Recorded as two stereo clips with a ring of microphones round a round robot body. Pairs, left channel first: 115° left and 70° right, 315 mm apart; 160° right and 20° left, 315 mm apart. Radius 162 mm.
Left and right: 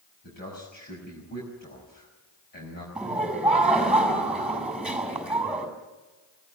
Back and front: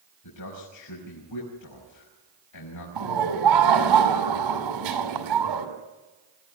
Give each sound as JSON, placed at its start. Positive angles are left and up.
{"t": 0.2, "sound": "a man speaking", "azimuth_deg": 175, "distance_m": 5.5}
{"t": 3.0, "sound": "laughter", "azimuth_deg": 20, "distance_m": 6.5}